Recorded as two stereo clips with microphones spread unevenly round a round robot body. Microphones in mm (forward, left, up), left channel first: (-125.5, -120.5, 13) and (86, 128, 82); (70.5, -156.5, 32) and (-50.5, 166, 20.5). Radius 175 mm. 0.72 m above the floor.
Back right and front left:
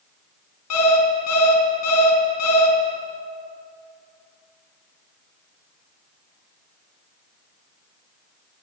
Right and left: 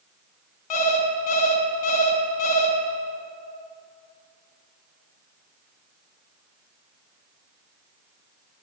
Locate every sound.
0.7 s an alarm clock: 85° right, 3.5 m